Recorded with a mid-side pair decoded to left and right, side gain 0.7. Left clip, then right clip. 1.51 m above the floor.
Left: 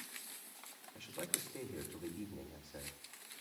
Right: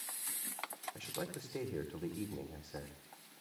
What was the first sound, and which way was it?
A man speaking, 30° right.